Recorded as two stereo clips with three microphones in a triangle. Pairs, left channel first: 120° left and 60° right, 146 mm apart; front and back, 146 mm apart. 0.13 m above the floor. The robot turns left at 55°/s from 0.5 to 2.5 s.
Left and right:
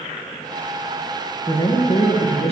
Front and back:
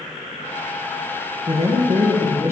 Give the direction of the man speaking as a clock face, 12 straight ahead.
6 o'clock.